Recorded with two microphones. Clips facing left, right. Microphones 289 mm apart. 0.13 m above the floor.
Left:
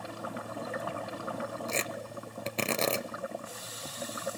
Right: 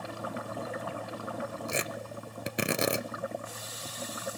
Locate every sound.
1.7 s tearing paper: 15° right (ahead or behind), 1.0 m